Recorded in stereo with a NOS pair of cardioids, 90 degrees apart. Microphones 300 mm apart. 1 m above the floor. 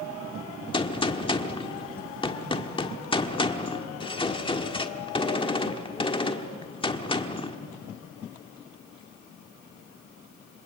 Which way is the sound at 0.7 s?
15° left.